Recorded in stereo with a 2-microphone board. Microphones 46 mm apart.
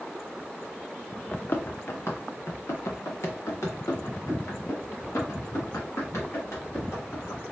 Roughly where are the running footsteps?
Left.